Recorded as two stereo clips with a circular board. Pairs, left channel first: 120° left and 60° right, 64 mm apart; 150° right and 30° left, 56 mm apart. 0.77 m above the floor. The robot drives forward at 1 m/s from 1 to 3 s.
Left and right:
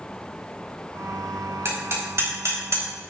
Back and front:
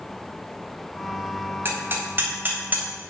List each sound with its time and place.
1.6 s hammering: 15° right, 4 m; by 3.0 s 25° right, 2.5 m